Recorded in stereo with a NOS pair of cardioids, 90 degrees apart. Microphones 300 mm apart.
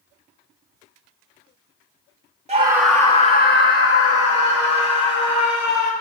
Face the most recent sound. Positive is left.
turn(degrees=70)